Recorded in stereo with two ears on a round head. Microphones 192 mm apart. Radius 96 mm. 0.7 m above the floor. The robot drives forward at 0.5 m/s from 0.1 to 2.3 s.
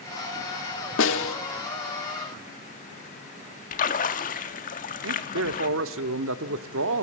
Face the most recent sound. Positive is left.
turn(degrees=-65)  # may be behind; listen again after turning